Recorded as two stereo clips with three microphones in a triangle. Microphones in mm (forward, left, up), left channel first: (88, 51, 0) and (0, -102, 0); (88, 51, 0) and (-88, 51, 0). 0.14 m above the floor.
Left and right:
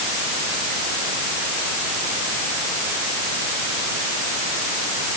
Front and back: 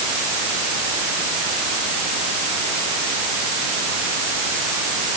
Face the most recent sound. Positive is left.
No sound to turn to.